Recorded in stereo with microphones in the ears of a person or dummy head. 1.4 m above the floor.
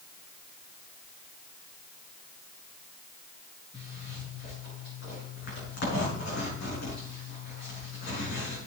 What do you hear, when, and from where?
3.7 s a zipper: 65° left (ahead or behind), 5.5 m